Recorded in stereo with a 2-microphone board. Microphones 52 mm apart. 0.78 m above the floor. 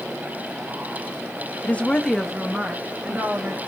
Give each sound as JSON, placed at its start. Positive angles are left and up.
{"t": 1.6, "sound": "a woman speaking", "side_deg": 30, "distance_m": 0.8}